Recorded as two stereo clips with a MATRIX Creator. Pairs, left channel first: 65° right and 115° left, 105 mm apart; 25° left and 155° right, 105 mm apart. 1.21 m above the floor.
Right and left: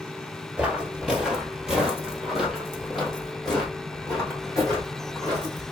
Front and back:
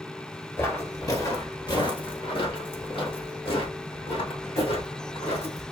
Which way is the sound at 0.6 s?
45° left.